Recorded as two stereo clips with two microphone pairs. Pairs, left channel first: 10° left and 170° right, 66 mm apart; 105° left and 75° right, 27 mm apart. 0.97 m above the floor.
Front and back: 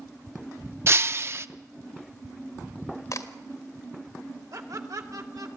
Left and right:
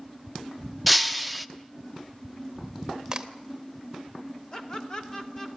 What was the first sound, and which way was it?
Breaking glass, 160° right.